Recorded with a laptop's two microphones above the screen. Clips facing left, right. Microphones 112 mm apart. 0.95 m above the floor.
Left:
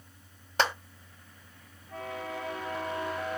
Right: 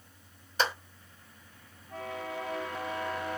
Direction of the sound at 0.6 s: 65° left (ahead or behind).